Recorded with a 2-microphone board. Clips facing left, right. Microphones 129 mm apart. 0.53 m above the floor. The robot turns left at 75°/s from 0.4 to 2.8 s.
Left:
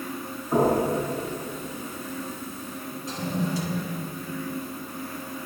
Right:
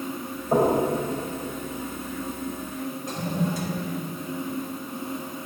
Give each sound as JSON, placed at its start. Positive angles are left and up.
{"t": 0.5, "sound": "knocking", "side_deg": -70, "distance_m": 3.0}
{"t": 3.1, "sound": "a toilet flushing", "side_deg": -60, "distance_m": 1.4}